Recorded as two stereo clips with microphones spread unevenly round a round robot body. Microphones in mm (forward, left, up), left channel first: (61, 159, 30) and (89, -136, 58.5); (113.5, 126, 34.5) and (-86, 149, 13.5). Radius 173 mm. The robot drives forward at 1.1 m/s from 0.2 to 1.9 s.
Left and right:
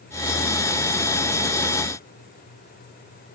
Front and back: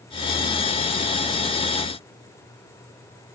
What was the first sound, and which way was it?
Only background noise.